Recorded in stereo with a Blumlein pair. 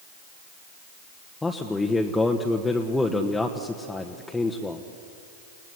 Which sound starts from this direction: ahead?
A man speaking, at 1.4 s.